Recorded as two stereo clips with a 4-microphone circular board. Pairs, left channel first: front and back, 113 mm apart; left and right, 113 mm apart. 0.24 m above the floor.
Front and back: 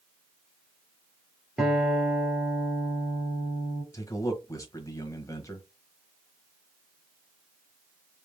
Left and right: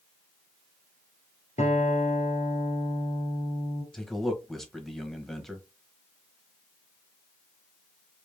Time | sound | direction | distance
1.6 | a guitar | 95° left | 2.0 m
3.9 | a man speaking | 5° left | 1.1 m